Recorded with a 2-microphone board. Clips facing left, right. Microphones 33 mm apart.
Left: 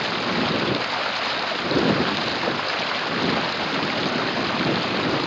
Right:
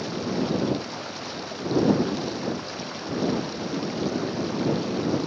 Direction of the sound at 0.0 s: 55° left (ahead or behind).